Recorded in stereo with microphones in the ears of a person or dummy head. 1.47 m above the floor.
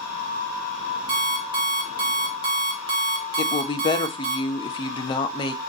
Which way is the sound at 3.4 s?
30° left (ahead or behind).